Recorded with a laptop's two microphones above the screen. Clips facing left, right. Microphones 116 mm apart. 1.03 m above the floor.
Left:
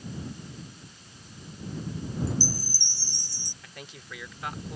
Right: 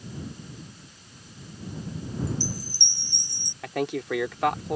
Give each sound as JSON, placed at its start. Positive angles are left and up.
{"t": 2.3, "sound": "a chime", "side_deg": -25}
{"t": 3.6, "sound": "a man speaking", "side_deg": -80}